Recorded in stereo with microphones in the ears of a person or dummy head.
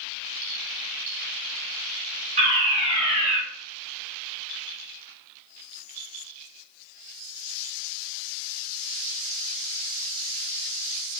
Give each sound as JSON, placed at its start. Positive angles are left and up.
{"t": 2.4, "sound": "a fire alarm", "side_deg": -25, "distance_m": 2.5}